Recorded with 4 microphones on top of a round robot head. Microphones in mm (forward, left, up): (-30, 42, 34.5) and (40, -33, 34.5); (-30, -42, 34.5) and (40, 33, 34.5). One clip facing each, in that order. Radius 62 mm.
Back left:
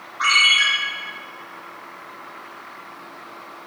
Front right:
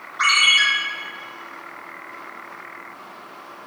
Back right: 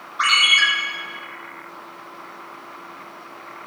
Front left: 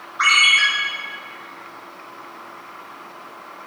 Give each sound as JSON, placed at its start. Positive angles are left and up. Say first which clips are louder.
{"t": 0.2, "sound": "a ringtone", "louder": "even, front left 2 dB", "azimuth_deg": -65, "distance_m": 3.0}